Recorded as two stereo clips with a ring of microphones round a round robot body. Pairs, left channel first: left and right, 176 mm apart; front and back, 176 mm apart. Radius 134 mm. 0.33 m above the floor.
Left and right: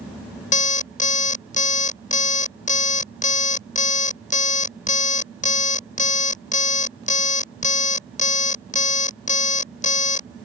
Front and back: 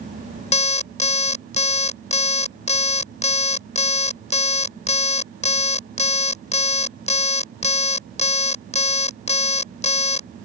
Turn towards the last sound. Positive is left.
turn(degrees=50)